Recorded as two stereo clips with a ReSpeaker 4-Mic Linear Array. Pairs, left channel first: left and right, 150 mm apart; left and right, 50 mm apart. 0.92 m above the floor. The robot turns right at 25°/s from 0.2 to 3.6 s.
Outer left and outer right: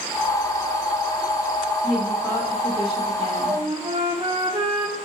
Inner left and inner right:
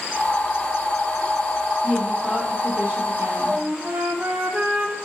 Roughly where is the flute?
Right.